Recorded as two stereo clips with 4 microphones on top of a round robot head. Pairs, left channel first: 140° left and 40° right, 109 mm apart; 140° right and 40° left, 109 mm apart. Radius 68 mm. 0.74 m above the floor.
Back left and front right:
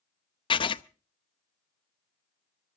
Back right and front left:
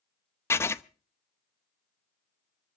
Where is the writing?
160° left, 0.7 m.